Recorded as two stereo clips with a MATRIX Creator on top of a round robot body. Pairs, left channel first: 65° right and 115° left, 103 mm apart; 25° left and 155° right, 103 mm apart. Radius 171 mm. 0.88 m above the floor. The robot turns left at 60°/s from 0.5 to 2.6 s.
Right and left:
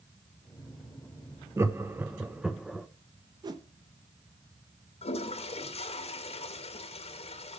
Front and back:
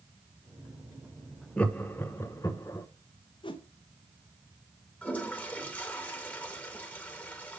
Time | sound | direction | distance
1.6 | laughter | 90° left | 0.9 m
3.4 | a whoosh | 65° left | 0.9 m
5.0 | a toilet flushing | 50° right | 1.0 m